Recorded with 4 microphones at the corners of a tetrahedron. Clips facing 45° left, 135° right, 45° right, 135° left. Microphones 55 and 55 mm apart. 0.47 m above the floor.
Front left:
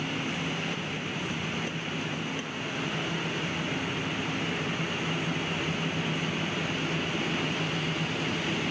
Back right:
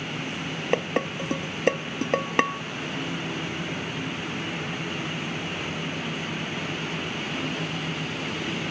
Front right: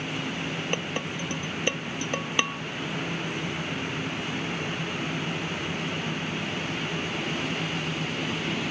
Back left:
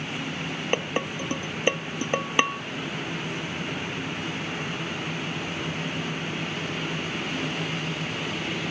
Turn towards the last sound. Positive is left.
turn(degrees=-155)